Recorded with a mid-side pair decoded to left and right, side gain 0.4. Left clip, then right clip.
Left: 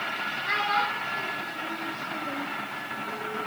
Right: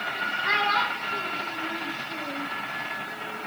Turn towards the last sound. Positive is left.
turn(degrees=15)